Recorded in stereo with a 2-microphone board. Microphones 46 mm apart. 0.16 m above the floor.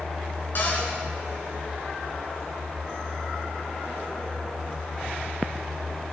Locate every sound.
0.6 s a cupboard door: 50° left (ahead or behind), 1.6 m